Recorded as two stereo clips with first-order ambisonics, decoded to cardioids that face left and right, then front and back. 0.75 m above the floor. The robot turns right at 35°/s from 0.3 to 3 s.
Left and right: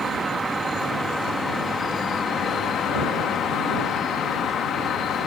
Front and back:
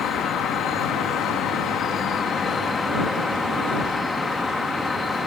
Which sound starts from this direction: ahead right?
An insect, at 0.0 s.